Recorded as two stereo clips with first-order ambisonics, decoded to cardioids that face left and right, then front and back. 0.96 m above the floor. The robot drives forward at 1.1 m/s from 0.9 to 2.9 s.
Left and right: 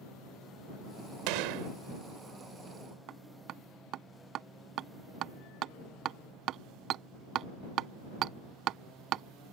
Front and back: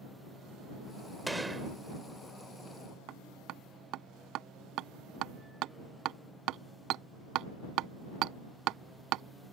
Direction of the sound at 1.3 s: 95° right.